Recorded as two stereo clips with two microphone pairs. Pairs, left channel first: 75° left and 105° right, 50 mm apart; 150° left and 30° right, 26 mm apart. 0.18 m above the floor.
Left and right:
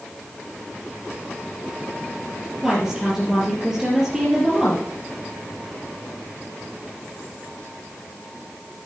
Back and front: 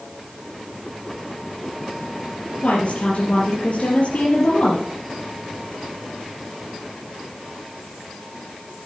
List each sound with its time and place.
2.6 s a woman speaking: straight behind, 4.5 m